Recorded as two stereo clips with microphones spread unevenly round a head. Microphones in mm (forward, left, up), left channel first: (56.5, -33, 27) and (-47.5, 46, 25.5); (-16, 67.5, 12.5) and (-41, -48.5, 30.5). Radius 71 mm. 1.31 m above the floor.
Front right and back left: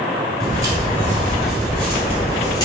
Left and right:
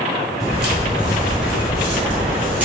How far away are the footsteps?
About 1.5 m.